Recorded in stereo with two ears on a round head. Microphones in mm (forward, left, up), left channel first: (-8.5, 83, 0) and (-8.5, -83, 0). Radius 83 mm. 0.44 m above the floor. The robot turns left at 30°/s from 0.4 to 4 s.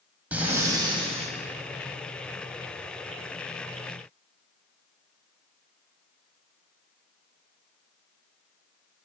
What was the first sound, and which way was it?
Breathing, 10° right (ahead or behind).